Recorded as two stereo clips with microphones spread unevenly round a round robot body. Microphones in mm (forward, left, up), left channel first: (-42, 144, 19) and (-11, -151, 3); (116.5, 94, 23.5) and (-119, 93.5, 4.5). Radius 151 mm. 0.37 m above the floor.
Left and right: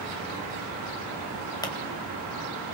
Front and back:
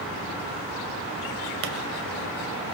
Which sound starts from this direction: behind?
A pop, at 1.6 s.